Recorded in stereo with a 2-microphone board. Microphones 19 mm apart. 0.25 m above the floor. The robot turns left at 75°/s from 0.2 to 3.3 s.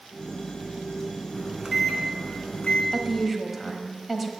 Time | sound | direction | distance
1.3 | a microwave | 145° right | 1.8 m
2.9 | a woman speaking | centre (ahead or behind) | 1.3 m